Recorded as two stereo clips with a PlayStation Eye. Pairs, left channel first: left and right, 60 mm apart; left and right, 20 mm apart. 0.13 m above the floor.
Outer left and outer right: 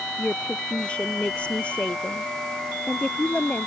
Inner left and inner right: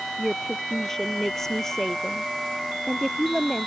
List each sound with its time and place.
0.2 s a woman speaking: 20° left (ahead or behind)